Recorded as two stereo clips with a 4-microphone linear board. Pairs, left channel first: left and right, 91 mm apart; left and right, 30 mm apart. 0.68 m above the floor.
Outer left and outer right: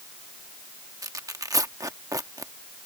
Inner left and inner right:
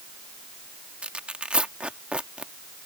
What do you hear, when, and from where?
1.0 s tearing paper: 40° right (ahead or behind)